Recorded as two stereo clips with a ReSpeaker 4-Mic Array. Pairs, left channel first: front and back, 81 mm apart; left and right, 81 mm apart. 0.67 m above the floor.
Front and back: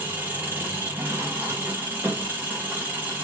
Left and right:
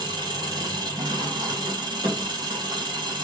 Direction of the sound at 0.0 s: 115° right.